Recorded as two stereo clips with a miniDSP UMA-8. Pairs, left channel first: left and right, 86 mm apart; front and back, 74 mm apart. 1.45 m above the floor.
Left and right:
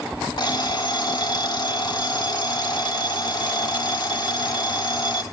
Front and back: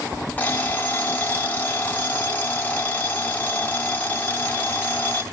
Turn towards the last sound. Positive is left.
turn(degrees=70)